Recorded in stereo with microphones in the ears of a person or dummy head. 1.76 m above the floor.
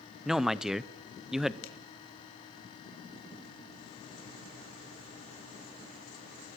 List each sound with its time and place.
0.2 s a man speaking: centre (ahead or behind), 0.8 m
1.6 s a finger snap: 70° left (ahead or behind), 2.5 m